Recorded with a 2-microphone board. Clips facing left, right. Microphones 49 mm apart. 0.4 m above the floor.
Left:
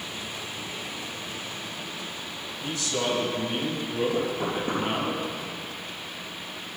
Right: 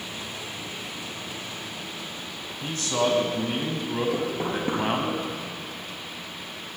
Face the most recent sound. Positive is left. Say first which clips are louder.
# even
turn(degrees=-25)  # may be behind; listen again after turning